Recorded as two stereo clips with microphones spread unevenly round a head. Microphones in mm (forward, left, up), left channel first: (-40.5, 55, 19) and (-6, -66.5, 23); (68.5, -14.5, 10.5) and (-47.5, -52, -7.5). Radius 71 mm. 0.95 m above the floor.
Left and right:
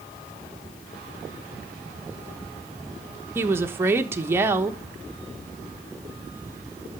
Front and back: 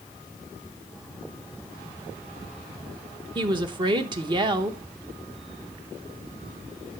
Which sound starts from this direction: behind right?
A woman speaking, at 3.4 s.